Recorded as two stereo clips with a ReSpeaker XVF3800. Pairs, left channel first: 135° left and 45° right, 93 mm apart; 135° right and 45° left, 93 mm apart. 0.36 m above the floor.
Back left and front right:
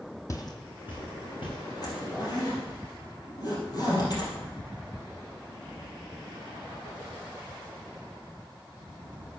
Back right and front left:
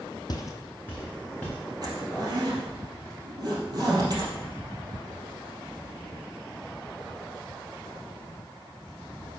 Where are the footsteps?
175° right, 0.8 m; by 1.6 s 150° left, 2.5 m.